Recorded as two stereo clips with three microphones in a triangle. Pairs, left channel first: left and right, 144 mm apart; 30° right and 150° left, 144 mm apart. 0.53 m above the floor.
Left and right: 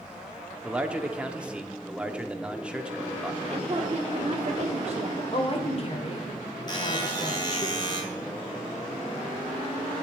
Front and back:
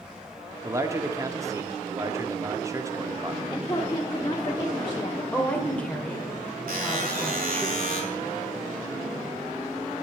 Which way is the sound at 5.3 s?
50° left.